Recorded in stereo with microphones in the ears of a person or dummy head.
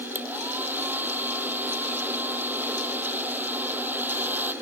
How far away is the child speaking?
No child speaking in this recording.